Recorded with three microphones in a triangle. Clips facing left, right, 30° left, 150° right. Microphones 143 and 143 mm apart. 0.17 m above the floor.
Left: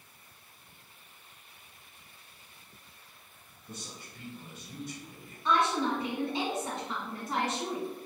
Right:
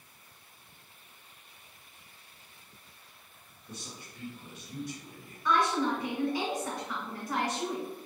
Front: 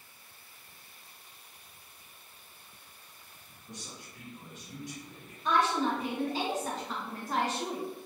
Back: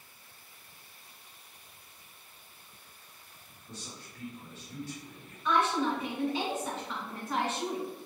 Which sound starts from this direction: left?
A man speaking, at 3.7 s.